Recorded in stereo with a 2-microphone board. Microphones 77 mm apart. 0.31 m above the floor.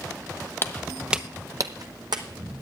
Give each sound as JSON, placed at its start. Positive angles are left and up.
{"t": 0.6, "sound": "footsteps", "side_deg": 35, "distance_m": 0.6}